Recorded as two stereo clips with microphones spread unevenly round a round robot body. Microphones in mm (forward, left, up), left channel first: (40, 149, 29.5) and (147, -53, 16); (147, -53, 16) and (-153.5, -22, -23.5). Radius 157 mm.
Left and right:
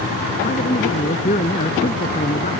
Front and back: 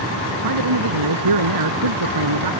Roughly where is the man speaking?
Behind.